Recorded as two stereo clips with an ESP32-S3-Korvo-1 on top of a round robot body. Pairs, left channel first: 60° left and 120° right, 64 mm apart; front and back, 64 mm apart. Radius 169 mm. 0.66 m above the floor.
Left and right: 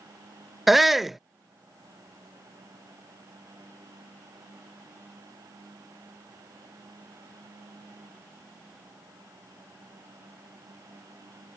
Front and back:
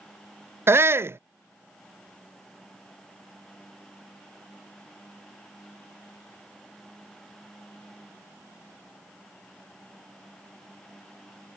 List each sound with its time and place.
0.7 s a shout: 155° left